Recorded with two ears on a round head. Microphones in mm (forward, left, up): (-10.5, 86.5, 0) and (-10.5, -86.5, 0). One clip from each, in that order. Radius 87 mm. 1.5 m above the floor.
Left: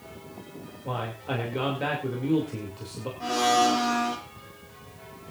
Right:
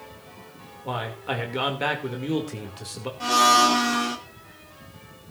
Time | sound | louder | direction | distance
0.8 | a man speaking | right 3 dB | 40° right (ahead or behind) | 2.5 m
3.2 | a blender | right 5 dB | 60° right (ahead or behind) | 2.5 m